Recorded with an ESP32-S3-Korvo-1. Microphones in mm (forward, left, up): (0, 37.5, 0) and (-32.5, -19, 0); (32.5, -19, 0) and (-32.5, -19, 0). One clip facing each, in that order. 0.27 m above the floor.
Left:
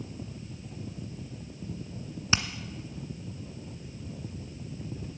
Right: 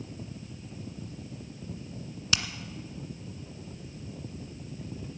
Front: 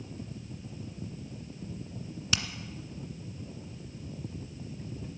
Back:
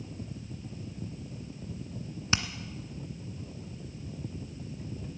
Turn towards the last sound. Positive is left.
turn(degrees=120)